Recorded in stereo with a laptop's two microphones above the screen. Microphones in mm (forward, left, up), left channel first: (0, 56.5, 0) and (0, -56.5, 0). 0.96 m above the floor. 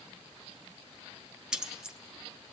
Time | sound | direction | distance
1.5 | keys jangling | 5° right (ahead or behind) | 1.0 m